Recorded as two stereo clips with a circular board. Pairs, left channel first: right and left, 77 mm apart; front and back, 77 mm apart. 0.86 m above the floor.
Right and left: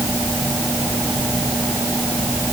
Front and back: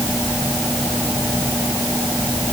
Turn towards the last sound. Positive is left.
No sound to turn to.